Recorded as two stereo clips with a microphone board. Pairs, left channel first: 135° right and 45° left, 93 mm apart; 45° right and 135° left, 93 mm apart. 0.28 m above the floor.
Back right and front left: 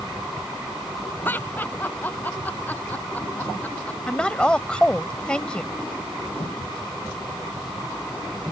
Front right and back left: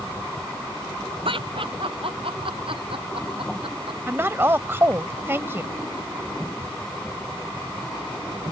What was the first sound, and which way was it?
Laughter, 155° left.